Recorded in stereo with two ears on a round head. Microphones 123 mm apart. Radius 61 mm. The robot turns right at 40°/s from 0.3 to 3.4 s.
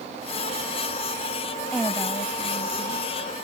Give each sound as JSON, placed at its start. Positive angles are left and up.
{"t": 1.7, "sound": "a woman speaking", "azimuth_deg": 5}